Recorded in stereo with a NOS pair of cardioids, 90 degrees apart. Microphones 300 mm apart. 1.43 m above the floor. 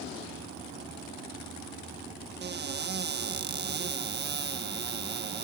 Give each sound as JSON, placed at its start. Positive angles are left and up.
{"t": 2.4, "sound": "a cupboard door", "azimuth_deg": -35}